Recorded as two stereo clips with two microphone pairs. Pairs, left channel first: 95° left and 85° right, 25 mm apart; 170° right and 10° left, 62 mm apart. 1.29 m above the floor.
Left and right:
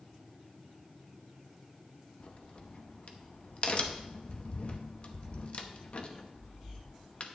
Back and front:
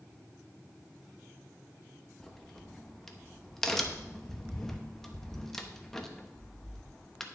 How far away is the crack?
About 0.8 m.